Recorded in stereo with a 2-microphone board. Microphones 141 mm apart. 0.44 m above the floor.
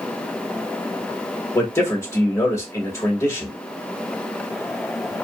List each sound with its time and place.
1.6 s a man speaking: 20° left (ahead or behind), 1.4 m